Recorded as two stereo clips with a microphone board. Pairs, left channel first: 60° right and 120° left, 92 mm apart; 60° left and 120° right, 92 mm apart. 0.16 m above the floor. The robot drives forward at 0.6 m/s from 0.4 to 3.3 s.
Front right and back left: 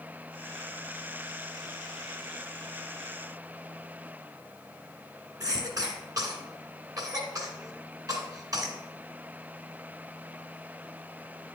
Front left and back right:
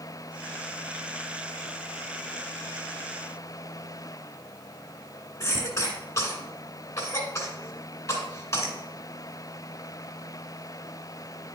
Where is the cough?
105° left, 2 m.